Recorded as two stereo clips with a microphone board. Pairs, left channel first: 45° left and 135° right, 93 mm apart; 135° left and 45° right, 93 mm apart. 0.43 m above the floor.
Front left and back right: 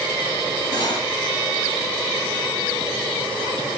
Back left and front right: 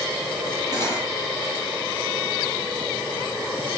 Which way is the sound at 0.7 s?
Straight ahead.